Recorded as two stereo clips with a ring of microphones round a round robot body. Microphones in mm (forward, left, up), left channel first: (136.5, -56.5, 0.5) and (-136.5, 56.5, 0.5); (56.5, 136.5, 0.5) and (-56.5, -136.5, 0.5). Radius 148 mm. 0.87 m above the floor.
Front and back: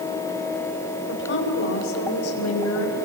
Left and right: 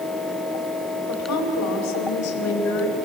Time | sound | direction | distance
1.1 | a woman speaking | 35° left | 4 m